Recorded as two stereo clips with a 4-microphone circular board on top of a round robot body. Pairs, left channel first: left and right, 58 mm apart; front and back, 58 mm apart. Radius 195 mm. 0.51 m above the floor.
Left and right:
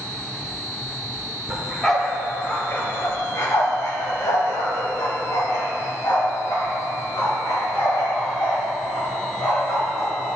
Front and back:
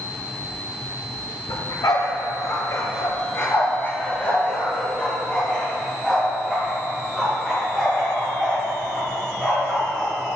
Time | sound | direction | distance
1.5 | a dog barking | 5° right | 1.6 m